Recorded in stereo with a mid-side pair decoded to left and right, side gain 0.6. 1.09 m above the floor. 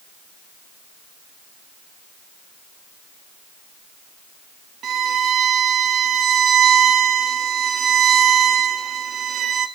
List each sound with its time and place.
4.8 s a violin: 45° right, 1.8 m